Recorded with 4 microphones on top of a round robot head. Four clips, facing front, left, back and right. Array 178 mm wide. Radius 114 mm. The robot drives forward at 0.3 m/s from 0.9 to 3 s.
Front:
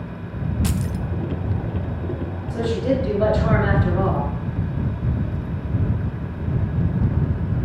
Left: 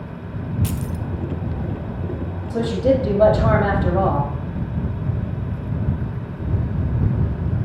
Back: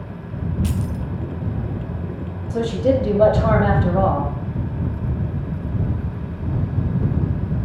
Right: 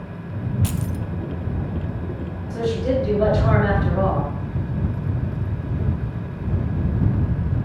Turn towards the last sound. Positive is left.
turn(degrees=135)